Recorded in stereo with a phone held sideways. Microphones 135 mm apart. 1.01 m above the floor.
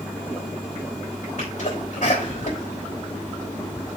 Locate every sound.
1.4 s a sneeze: 60° left (ahead or behind), 4.5 m